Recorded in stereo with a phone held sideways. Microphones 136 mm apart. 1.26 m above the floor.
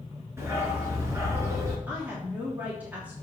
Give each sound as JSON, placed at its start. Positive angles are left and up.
{"t": 0.4, "sound": "a dog barking", "side_deg": -20, "distance_m": 5.0}
{"t": 1.9, "sound": "a woman speaking", "side_deg": -10, "distance_m": 3.0}